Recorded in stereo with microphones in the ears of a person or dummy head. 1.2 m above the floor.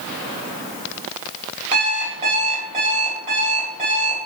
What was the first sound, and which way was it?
An alarm clock, 30° right (ahead or behind).